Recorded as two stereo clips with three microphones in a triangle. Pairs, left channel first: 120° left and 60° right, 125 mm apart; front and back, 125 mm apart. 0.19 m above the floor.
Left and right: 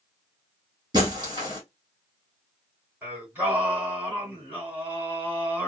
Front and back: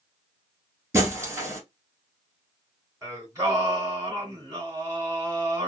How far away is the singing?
About 2 m.